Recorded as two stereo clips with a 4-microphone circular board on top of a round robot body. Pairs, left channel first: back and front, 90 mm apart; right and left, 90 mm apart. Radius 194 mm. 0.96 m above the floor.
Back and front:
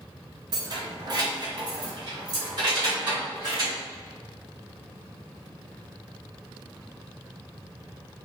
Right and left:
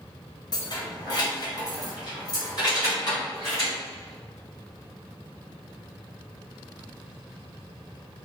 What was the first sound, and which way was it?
Keys jangling, 45° right.